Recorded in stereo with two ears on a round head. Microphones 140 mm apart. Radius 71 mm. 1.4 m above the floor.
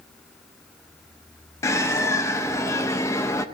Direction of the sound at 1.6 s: 20° left (ahead or behind).